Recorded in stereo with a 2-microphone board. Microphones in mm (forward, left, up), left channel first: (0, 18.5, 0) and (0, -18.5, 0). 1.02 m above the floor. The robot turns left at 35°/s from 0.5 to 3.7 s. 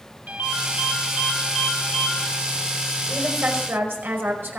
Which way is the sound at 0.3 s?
120° right.